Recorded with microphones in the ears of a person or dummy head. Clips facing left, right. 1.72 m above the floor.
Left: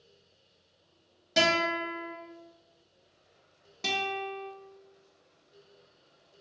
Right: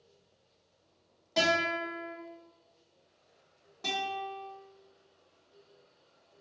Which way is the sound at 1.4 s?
30° left (ahead or behind).